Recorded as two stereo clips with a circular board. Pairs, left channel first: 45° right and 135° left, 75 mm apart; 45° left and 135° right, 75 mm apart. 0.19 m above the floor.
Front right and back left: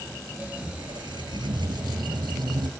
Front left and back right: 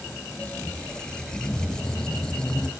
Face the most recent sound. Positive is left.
turn(degrees=125)